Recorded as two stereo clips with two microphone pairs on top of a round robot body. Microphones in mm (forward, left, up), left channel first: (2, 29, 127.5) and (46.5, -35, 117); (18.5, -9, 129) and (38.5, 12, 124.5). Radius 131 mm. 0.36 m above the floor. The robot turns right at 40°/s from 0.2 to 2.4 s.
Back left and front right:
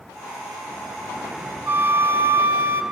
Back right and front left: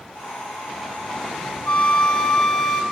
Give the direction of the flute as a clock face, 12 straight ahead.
3 o'clock.